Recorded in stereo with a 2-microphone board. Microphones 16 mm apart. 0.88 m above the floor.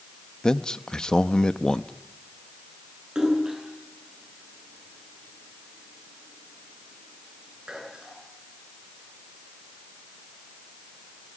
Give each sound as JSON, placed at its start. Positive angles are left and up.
{"t": 0.4, "sound": "a man speaking", "side_deg": 50, "distance_m": 0.8}
{"t": 3.1, "sound": "a splash", "side_deg": -50, "distance_m": 9.0}